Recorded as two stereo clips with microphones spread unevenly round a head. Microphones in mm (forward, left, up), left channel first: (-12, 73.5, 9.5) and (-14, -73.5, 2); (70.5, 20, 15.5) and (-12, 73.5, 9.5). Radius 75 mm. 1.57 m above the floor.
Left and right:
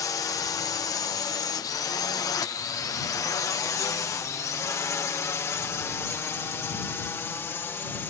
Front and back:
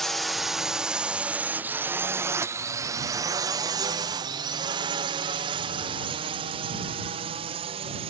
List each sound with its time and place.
0.0 s a drone: 55° left; by 8.1 s 165° left